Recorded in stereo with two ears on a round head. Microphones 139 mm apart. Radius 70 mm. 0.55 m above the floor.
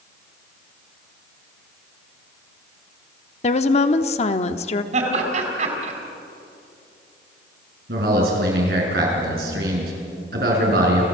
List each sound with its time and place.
3.4 s a woman speaking: 40° left (ahead or behind), 0.9 m
4.9 s laughter: 50° right (ahead or behind), 4.5 m
7.9 s a man speaking: 65° right (ahead or behind), 6 m